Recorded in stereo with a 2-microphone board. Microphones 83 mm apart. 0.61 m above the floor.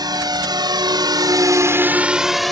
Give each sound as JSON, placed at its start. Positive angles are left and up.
{"t": 0.0, "sound": "a drone", "side_deg": -55}